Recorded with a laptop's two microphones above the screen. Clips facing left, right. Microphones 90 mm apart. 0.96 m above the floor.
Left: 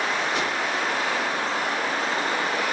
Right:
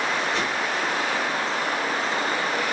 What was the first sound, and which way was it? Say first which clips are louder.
A whoosh: even; 10° left (ahead or behind).